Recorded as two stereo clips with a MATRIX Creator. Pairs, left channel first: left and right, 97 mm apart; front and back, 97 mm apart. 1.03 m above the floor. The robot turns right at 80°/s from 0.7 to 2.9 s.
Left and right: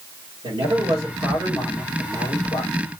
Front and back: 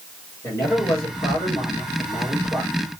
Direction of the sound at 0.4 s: 60° right.